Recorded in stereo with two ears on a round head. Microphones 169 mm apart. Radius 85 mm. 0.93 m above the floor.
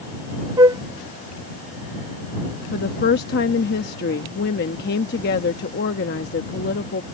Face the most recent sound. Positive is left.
turn(degrees=50)  # may be behind; listen again after turning